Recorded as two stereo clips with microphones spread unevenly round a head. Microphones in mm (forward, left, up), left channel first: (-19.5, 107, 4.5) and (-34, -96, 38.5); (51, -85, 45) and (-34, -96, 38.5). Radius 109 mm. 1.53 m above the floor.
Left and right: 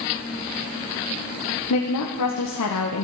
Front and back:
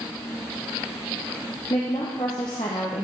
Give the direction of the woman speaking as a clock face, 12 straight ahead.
10 o'clock.